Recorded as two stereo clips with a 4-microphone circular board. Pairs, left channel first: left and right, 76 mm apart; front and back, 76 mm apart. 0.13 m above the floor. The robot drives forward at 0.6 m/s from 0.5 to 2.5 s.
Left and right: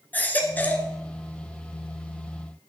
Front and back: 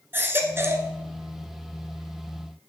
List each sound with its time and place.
0.1 s a baby crying: 140° left, 1.1 m; by 0.9 s 150° left, 1.3 m